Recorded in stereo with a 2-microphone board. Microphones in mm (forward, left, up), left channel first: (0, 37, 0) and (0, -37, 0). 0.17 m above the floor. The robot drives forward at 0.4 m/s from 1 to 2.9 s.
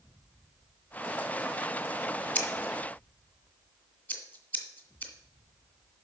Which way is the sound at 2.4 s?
20° left (ahead or behind).